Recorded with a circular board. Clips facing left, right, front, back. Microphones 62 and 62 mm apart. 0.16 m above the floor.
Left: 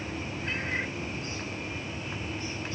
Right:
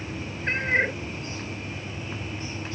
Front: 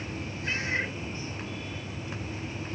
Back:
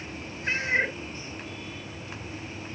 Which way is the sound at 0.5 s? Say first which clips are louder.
Right 10 dB, back 5 dB; 125° right.